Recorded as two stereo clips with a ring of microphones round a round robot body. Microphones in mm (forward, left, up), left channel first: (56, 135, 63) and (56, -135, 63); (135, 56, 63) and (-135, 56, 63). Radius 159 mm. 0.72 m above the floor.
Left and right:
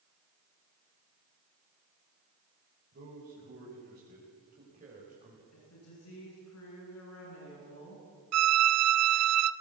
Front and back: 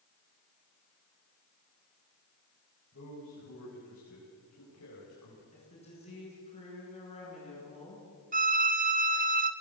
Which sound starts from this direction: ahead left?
A woman speaking, at 5.5 s.